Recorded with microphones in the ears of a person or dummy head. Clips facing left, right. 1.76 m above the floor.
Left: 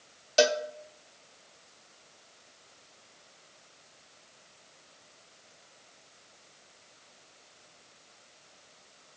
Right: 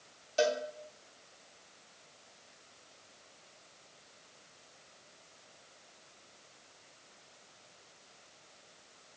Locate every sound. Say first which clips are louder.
0.4 s a cowbell: left 5 dB; 70° left (ahead or behind), 0.8 m